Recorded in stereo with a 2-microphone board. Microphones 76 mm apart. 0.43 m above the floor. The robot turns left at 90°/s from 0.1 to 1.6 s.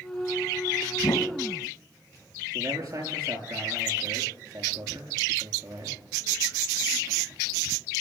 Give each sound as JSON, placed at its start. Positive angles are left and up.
{"t": 1.0, "sound": "a whoosh", "side_deg": 70, "distance_m": 1.6}
{"t": 2.5, "sound": "a man speaking", "side_deg": -55, "distance_m": 7.0}